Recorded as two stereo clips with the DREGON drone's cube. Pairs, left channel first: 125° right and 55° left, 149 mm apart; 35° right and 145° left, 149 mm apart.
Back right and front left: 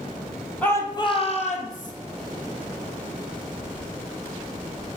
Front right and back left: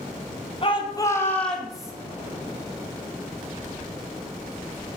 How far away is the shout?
About 1.4 m.